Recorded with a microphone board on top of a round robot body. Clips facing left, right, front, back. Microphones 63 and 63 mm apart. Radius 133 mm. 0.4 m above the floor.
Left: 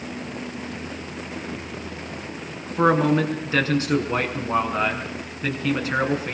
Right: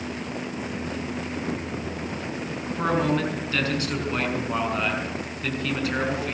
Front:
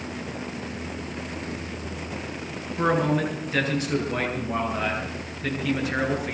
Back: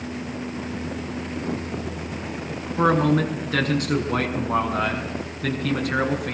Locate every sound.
2.8 s a man speaking: 155° left, 6 m